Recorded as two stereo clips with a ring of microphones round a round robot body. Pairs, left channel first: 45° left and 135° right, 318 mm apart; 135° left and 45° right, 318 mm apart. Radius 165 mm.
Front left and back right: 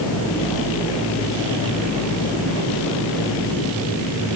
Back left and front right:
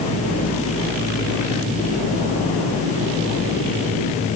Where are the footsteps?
No footsteps in this recording.